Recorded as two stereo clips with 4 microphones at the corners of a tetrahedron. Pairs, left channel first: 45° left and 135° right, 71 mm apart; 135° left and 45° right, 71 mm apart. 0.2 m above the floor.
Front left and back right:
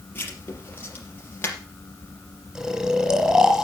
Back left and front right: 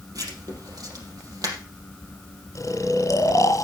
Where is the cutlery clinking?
No cutlery clinking in this recording.